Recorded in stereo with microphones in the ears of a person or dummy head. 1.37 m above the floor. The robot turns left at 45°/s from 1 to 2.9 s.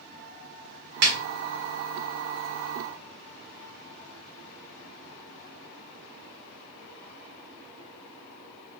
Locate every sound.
1.0 s a snare drum: 60° right (ahead or behind), 0.7 m; by 1.2 s 55° right (ahead or behind), 0.7 m